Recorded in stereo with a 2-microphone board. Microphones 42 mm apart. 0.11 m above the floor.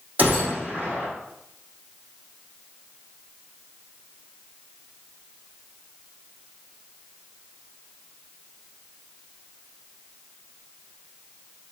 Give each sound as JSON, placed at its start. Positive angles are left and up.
{"t": 0.2, "sound": "a gunshot", "side_deg": -40, "distance_m": 4.5}